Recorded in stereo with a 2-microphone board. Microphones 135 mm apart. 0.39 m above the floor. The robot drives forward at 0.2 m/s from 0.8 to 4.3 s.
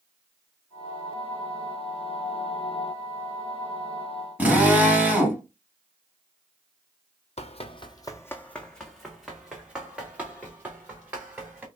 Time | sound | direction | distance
4.4 | a drill | 10° right (ahead or behind) | 1.7 m
7.4 | running footsteps | 55° left (ahead or behind) | 0.6 m